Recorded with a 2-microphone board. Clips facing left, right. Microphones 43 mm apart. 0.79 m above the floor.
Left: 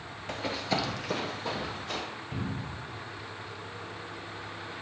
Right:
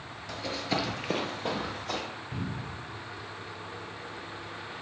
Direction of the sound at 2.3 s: 5° left (ahead or behind).